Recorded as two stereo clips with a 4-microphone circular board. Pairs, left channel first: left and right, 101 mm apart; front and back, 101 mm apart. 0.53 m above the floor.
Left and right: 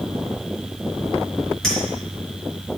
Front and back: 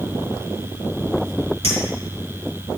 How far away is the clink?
About 4 m.